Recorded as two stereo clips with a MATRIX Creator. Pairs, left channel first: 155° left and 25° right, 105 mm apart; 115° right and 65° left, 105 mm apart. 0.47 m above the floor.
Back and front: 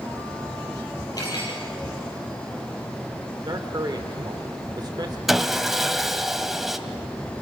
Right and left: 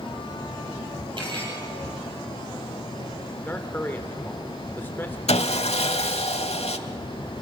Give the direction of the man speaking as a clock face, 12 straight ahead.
2 o'clock.